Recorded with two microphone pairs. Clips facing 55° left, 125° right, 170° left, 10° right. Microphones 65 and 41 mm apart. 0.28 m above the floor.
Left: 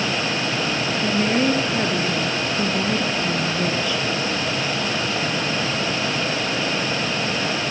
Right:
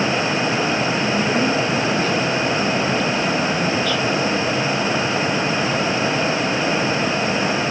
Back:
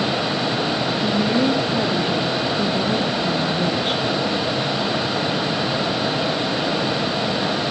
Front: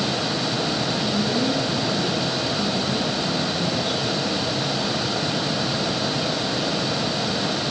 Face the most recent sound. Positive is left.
turn(degrees=130)